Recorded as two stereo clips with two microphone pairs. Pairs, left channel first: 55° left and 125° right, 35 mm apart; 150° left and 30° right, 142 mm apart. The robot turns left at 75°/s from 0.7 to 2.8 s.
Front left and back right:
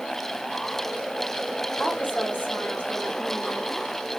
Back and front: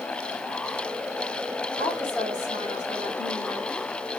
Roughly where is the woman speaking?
Left.